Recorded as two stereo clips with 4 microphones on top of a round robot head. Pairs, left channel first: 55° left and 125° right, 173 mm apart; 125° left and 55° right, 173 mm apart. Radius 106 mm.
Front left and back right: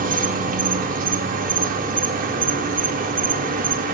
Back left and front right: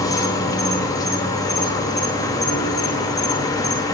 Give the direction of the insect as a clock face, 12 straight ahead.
5 o'clock.